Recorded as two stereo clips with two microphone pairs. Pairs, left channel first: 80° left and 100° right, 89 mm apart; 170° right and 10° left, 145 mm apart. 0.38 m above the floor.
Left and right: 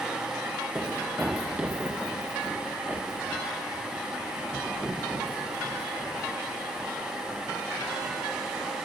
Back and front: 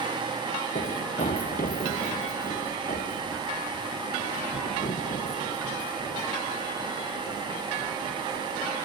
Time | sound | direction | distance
0.8 | running footsteps | 175° right | ?